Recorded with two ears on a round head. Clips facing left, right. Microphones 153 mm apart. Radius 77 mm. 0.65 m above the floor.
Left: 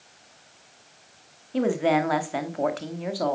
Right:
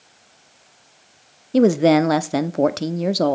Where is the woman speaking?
50° right (ahead or behind), 1.0 m.